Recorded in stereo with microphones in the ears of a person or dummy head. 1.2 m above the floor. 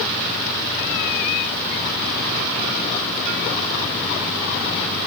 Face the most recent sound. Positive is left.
No sound to turn to.